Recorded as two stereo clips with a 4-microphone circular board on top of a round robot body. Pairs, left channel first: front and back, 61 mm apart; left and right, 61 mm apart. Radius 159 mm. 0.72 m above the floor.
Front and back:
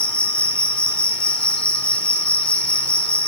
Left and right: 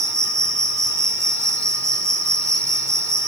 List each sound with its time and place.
0.0 s an insect: 70° right, 1.5 m